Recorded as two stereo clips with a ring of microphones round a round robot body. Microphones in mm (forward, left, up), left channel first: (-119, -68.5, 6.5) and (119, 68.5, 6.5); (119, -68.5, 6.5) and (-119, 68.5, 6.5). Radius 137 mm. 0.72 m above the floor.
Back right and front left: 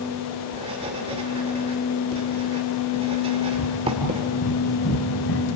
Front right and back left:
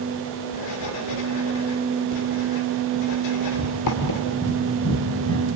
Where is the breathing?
105° right, 5 m.